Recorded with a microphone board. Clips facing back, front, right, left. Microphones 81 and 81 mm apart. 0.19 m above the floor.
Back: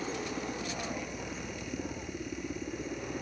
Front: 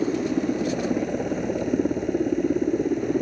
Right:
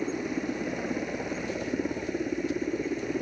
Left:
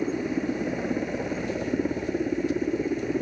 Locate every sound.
0.0 s a helicopter: 10° left